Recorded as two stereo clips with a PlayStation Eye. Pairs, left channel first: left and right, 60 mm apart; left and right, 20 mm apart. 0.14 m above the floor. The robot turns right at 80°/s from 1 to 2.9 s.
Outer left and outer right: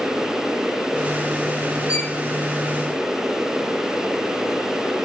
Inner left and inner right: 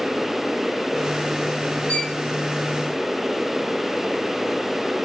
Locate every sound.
1.9 s a violin: 60° left (ahead or behind), 2.5 m; by 2.2 s 40° left (ahead or behind), 2.5 m